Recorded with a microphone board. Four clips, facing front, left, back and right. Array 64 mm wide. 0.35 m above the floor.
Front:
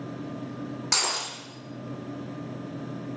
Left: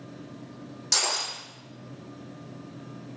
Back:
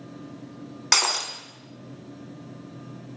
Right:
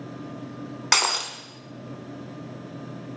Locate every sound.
0.9 s breaking glass: 120° right, 0.8 m